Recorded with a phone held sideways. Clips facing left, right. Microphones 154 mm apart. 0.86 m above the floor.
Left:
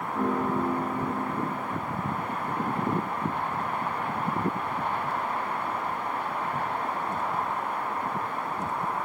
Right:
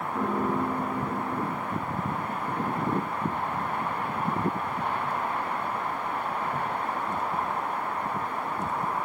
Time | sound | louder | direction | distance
0.1 | a piano | left 1 dB | 10° right (ahead or behind) | 9 m